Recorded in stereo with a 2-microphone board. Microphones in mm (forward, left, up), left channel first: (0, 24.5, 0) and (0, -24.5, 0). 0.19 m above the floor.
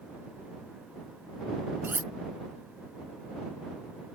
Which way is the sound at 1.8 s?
50° right (ahead or behind).